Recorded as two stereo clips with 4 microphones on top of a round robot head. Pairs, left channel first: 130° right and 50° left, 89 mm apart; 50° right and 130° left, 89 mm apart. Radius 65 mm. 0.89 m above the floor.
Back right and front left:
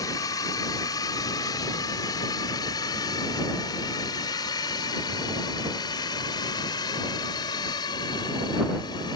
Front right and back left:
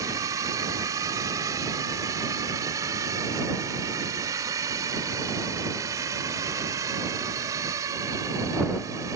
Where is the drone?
Straight behind; by 9.2 s 175° right.